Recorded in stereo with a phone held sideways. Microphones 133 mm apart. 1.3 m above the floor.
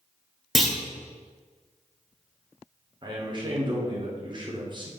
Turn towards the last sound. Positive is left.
turn(degrees=-35)  # may be behind; listen again after turning